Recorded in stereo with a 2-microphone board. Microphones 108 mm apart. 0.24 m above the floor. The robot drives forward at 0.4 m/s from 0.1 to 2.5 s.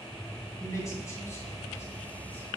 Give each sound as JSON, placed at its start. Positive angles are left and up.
{"t": 0.6, "sound": "a man speaking", "side_deg": 25, "distance_m": 2.0}